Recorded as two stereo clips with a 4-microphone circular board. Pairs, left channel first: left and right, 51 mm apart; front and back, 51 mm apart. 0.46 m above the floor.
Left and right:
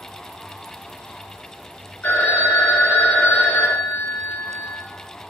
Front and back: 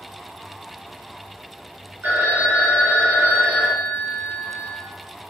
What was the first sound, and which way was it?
A phone ringing, 135° left.